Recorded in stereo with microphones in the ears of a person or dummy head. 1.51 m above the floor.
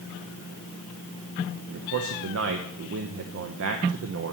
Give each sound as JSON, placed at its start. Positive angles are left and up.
{"t": 1.7, "sound": "a man speaking", "side_deg": -65, "distance_m": 0.7}